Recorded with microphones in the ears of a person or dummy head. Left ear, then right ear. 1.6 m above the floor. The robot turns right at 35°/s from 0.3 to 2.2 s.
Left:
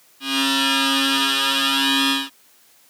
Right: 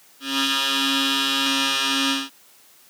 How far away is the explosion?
I don't hear an explosion.